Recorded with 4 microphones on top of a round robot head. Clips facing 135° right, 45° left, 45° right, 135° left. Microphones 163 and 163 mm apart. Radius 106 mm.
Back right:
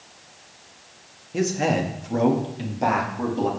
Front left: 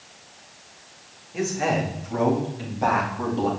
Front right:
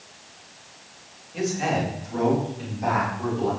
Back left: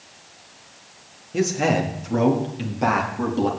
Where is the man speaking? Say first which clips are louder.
Back right 2 dB, back left 4 dB; 175° left, 2.5 m; by 3.5 s 145° left, 3 m.